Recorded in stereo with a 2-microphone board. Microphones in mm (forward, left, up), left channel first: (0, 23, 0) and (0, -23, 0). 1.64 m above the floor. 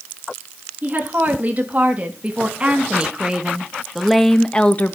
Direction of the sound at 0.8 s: 35° right (ahead or behind).